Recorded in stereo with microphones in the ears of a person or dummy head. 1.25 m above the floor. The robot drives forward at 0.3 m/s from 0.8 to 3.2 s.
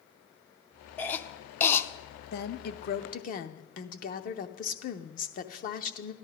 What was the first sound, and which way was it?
A cough, 10° left (ahead or behind).